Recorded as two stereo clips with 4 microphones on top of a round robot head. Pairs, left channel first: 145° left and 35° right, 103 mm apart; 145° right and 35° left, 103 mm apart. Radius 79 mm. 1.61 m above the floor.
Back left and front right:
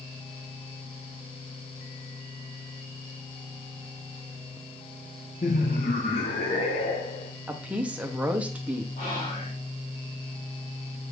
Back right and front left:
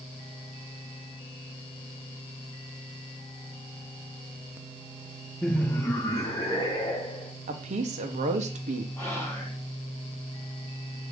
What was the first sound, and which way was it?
Laughter, 130° left.